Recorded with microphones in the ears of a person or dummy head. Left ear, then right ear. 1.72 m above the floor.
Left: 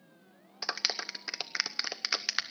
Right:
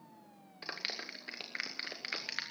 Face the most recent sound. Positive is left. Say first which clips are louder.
# left 7 dB
turn(degrees=45)  # may be behind; listen again after turning